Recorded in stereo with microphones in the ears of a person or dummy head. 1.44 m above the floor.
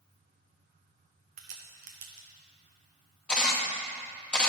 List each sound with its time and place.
1.4 s a crack: 45° right (ahead or behind), 0.8 m
3.3 s a camera shutter: 5° left (ahead or behind), 0.8 m